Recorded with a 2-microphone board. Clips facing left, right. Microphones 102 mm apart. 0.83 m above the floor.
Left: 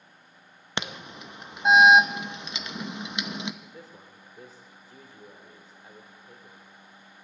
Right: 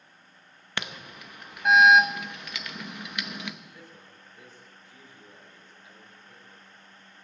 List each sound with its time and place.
0.8 s an alarm: 20° left (ahead or behind), 0.7 m
3.6 s a man speaking: 35° left (ahead or behind), 2.5 m